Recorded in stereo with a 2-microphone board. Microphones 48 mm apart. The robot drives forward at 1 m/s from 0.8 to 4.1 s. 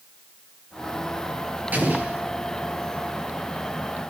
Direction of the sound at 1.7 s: 35° right (ahead or behind).